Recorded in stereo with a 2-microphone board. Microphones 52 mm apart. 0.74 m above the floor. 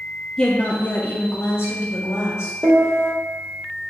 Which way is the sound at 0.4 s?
10° left (ahead or behind).